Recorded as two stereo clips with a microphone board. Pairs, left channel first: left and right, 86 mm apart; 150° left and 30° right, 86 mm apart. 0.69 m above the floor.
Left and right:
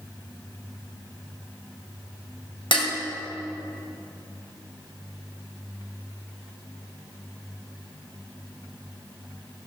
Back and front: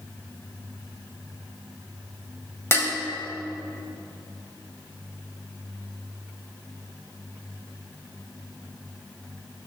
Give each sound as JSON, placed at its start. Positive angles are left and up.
{"t": 2.7, "sound": "dishes clattering", "azimuth_deg": 90, "distance_m": 2.0}